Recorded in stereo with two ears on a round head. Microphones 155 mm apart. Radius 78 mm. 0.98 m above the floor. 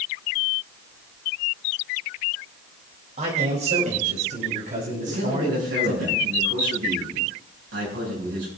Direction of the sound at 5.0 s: 90° right.